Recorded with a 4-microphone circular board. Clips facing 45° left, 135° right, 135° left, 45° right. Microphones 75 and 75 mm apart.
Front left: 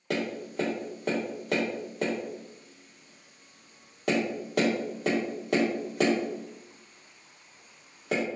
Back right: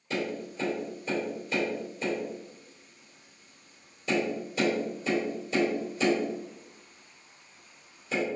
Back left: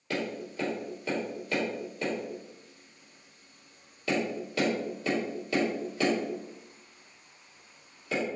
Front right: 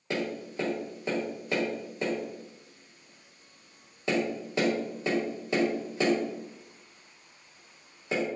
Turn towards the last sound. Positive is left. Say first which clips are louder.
# front left 2 dB, front right 1 dB
turn(degrees=20)